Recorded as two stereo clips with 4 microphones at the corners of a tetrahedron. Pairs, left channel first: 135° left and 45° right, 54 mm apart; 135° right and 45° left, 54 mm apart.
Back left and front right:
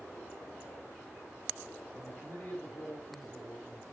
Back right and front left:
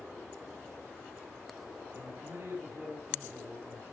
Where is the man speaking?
85° left, 5 m.